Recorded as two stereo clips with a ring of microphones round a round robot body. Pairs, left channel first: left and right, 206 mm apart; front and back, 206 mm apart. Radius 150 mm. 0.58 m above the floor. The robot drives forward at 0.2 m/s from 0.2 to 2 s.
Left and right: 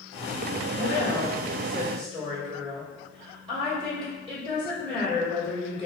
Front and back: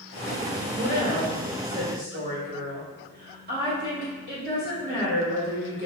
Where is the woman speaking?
140° right, 1.2 m; by 5.9 s 150° right, 1.3 m.